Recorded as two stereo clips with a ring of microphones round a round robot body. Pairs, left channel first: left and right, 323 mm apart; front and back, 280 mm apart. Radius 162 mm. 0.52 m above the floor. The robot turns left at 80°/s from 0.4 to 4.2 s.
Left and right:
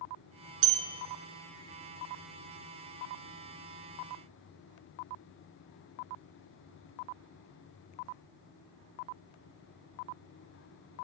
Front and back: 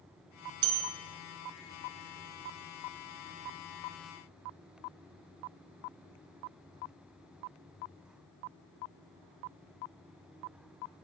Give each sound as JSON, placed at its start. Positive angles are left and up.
{"t": 0.6, "sound": "a bell", "azimuth_deg": -140, "distance_m": 1.7}